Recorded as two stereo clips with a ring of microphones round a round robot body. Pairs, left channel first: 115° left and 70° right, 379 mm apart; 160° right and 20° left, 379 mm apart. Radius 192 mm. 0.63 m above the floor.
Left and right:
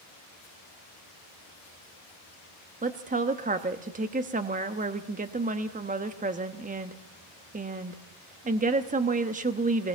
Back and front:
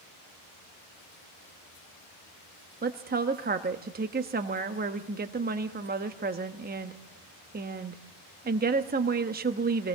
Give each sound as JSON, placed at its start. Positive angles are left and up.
{"t": 2.8, "sound": "a woman speaking", "azimuth_deg": -20, "distance_m": 0.9}